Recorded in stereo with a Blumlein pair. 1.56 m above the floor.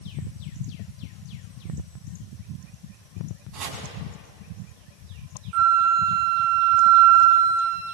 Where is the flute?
35° right, 0.9 m.